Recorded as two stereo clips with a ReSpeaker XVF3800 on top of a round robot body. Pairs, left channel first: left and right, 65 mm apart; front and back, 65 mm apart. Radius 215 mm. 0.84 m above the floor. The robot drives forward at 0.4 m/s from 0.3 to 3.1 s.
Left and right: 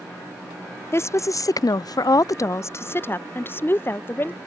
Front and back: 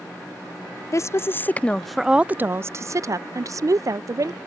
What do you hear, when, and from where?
0.9 s a woman speaking: 40° left; by 4.4 s 145° left